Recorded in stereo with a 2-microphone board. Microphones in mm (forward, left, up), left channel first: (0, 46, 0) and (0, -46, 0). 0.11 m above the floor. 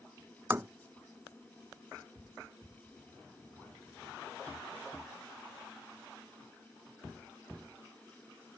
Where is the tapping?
25° right (ahead or behind).